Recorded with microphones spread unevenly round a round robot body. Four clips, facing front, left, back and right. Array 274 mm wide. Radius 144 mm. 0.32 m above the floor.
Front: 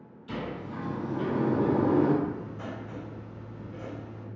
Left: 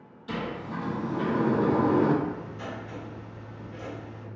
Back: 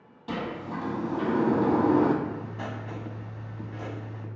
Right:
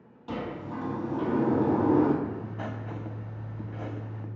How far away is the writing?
About 0.5 m.